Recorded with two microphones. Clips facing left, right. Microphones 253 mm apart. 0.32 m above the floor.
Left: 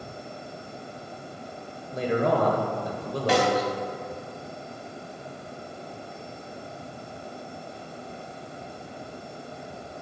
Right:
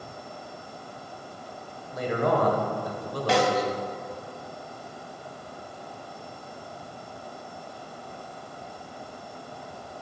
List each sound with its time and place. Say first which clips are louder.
1.9 s a man speaking: left 1 dB; 30° left (ahead or behind), 1.1 m
3.3 s a snare drum: even; 20° left (ahead or behind), 2 m